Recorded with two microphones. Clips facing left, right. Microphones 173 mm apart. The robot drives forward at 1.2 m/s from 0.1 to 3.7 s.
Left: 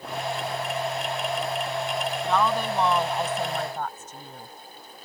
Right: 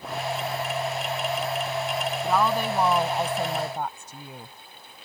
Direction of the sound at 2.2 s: 10° right (ahead or behind).